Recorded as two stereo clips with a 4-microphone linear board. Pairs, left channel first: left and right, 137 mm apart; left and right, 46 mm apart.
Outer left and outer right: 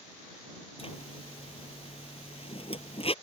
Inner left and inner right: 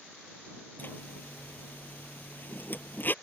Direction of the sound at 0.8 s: 45° left (ahead or behind).